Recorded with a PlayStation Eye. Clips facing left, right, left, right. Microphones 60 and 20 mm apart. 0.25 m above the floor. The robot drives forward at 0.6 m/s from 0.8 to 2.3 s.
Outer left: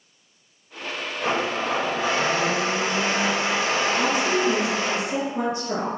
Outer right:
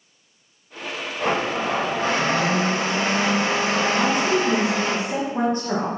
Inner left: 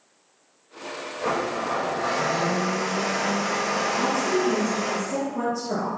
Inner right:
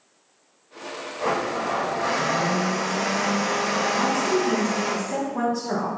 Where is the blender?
50° right (ahead or behind), 2.5 m.